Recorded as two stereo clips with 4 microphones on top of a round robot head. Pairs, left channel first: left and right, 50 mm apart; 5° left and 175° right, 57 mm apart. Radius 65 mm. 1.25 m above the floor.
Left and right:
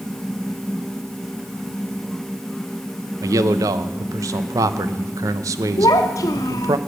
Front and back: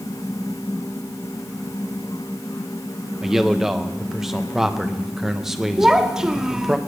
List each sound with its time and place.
3.2 s a man speaking: 90° right, 0.9 m
5.8 s a child speaking: 105° left, 1.2 m